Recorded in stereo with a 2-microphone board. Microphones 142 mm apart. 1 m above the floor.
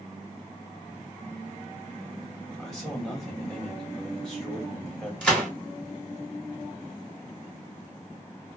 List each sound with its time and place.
2.6 s a man speaking: 5° left (ahead or behind), 1.4 m
5.2 s a gunshot: 5° left (ahead or behind), 1.5 m